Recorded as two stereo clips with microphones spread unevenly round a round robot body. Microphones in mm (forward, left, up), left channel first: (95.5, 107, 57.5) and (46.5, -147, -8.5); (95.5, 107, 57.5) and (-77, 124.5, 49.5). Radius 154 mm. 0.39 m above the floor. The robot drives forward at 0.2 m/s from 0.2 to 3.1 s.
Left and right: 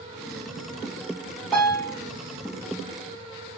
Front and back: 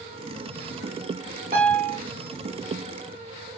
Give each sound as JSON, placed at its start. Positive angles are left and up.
{"t": 1.5, "sound": "a piano", "azimuth_deg": 175, "distance_m": 2.0}